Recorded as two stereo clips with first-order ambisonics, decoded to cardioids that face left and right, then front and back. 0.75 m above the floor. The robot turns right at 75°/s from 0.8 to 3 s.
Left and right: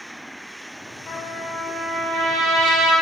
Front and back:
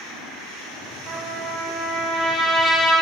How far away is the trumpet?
About 3 m.